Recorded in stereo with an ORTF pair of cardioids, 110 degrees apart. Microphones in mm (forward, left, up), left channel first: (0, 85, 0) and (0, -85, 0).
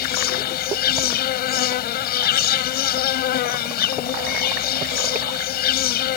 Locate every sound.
0.0 s an insect: 70° left